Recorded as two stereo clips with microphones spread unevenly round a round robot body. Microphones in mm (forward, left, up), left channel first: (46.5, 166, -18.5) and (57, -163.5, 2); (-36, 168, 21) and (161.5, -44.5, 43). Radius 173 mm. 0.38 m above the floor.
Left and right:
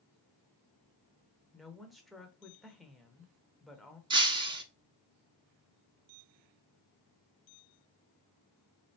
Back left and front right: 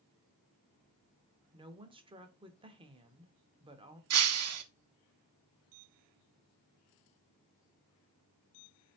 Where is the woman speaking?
10° left, 0.8 m.